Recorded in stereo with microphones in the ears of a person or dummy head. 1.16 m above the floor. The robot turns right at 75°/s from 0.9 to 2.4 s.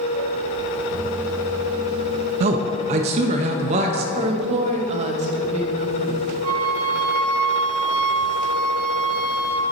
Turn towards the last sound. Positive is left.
turn(degrees=25)  # may be behind; listen again after turning